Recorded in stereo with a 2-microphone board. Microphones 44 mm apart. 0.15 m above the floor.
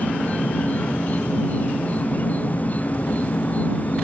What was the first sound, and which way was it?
An insect, 35° left (ahead or behind).